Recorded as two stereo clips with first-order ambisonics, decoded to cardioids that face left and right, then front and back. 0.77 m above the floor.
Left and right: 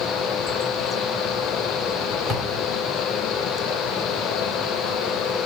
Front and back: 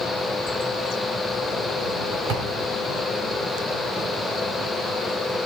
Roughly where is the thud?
Behind.